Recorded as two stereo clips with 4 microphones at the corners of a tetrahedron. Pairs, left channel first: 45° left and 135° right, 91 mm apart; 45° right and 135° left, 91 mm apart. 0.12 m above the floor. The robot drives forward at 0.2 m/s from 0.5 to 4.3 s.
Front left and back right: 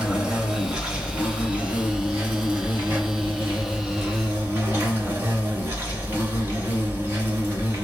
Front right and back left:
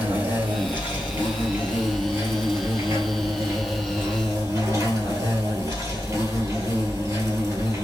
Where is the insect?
165° left, 1.4 m; by 7.8 s 175° left, 1.8 m.